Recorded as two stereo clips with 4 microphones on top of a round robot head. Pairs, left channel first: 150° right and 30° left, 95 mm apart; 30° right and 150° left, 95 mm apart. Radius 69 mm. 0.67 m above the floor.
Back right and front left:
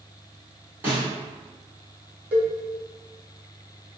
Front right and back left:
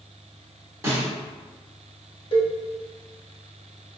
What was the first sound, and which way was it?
A snare drum, 95° left.